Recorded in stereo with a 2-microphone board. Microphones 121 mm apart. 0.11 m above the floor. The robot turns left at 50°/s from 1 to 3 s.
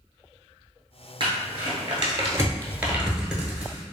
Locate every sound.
1.2 s crumpling: 45° right (ahead or behind), 0.9 m; by 3.8 s 5° right (ahead or behind), 0.9 m